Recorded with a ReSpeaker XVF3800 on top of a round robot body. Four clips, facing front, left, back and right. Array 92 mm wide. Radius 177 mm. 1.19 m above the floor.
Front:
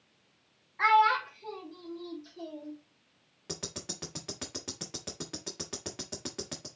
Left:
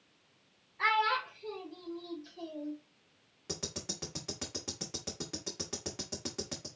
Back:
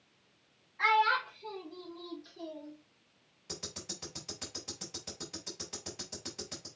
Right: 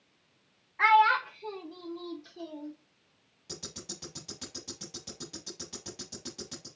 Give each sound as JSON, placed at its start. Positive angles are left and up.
{"t": 0.8, "sound": "a child speaking", "azimuth_deg": -60, "distance_m": 0.9}
{"t": 3.5, "sound": "ticking", "azimuth_deg": 30, "distance_m": 0.9}